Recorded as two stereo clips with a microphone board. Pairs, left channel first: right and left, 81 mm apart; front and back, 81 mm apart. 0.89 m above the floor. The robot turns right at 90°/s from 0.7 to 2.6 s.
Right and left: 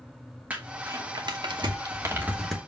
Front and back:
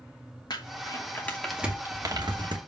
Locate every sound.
0.5 s crumpling: 20° left, 2.5 m; by 2.6 s 175° right, 2.5 m